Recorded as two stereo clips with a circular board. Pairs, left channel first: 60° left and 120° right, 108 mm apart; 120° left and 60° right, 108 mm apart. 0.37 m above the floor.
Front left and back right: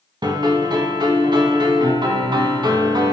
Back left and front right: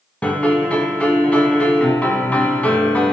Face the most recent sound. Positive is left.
turn(degrees=-160)